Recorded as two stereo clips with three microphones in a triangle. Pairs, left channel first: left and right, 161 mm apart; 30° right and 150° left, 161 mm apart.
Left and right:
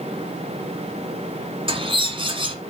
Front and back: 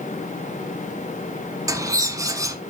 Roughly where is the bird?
Behind right.